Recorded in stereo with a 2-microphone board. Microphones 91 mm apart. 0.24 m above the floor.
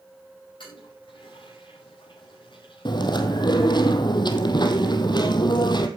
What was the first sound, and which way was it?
A toilet flushing, 60° left (ahead or behind).